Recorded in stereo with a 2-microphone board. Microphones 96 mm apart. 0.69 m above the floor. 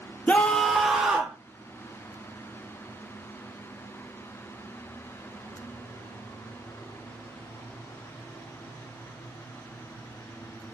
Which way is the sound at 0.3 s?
15° left (ahead or behind).